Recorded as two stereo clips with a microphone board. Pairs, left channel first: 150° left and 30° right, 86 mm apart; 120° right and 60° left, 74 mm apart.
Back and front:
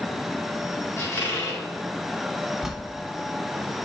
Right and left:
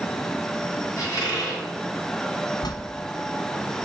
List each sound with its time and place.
1.0 s a squeak: 145° right, 3 m
2.6 s a bell: 115° right, 0.7 m